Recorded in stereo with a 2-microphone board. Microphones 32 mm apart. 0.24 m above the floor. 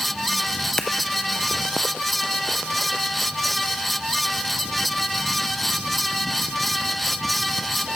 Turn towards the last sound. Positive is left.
turn(degrees=15)  # may be behind; listen again after turning